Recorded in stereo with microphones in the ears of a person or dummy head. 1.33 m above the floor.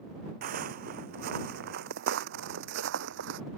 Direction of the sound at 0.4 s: 45° right (ahead or behind).